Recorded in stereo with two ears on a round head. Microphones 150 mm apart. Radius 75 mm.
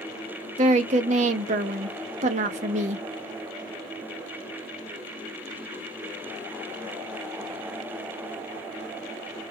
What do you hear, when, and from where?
0.6 s a woman speaking: 45° right (ahead or behind), 0.7 m